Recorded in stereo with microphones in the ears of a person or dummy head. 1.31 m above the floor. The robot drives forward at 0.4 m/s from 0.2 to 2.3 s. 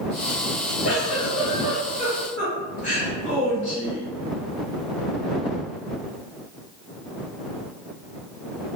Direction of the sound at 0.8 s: 45° left (ahead or behind).